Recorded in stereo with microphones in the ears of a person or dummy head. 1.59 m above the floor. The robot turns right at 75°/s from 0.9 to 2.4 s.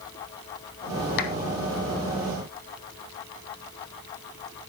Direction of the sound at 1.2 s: 50° left (ahead or behind).